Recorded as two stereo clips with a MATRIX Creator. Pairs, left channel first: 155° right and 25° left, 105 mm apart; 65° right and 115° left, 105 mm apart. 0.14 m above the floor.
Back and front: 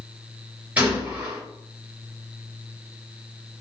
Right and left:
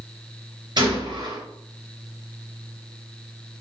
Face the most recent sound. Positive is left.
turn(degrees=95)